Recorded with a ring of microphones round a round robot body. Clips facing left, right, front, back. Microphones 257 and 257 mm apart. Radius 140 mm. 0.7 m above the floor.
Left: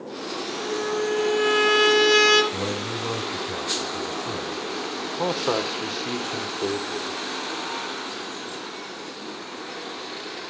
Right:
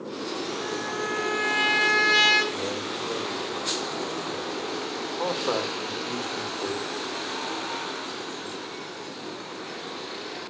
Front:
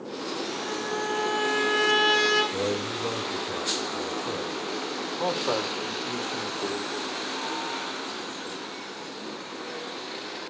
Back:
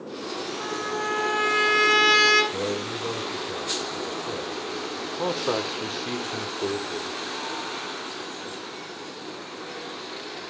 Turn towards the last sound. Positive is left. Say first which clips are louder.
# left 3 dB, back 2 dB
turn(degrees=130)